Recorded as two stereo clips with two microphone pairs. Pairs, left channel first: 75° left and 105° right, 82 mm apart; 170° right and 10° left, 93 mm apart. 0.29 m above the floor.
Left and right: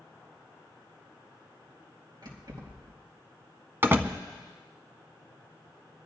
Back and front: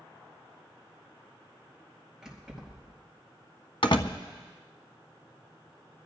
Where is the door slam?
160° right, 1.4 m.